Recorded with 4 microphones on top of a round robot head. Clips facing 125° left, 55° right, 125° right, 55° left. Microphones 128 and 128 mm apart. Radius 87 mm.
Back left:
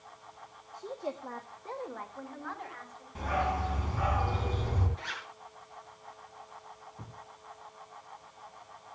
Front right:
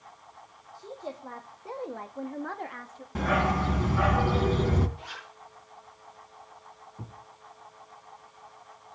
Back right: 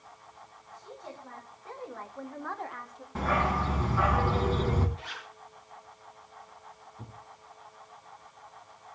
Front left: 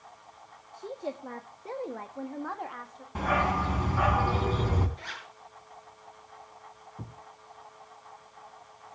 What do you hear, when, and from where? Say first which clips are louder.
0.7 s a woman speaking: back left 2 dB, front left 9 dB; 55° left, 2 m; by 3.0 s 40° right, 2 m
3.1 s a dog barking: front right 5 dB, front left 1 dB; 20° right, 3.5 m
5.0 s a zipper: back left 1 dB, even; 100° left, 7 m
7.0 s a thud: front right 6 dB, front left 3 dB; 15° left, 3.5 m